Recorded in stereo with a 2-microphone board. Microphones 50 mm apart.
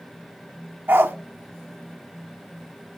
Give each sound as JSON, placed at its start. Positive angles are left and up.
{"t": 0.9, "sound": "a dog barking", "side_deg": -45, "distance_m": 0.6}